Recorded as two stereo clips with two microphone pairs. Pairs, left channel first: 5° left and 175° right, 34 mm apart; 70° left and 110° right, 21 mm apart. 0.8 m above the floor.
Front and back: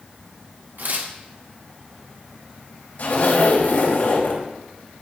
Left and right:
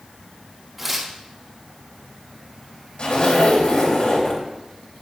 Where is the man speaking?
I don't hear a man speaking.